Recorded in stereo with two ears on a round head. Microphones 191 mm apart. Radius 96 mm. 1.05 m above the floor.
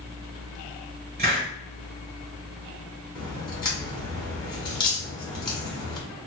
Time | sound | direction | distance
1.2 | a hiss | 45° right (ahead or behind) | 1.5 m
3.1 | a crack | 20° left (ahead or behind) | 1.0 m